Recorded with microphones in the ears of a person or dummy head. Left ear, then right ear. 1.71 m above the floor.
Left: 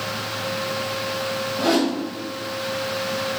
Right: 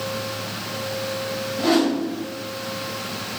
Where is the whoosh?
25° left (ahead or behind), 1.1 m.